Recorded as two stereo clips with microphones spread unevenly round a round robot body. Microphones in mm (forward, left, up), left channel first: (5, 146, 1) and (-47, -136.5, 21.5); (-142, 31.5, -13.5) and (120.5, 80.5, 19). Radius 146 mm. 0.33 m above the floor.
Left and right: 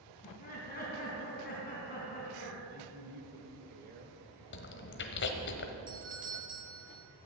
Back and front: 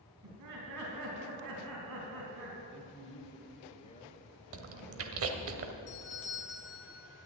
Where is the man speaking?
135° right, 1.5 m.